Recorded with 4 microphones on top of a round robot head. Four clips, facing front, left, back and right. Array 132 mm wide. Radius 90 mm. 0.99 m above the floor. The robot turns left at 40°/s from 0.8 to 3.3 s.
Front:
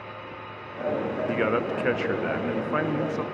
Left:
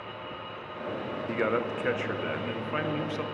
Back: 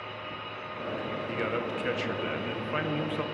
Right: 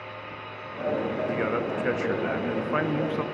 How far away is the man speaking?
About 0.8 m.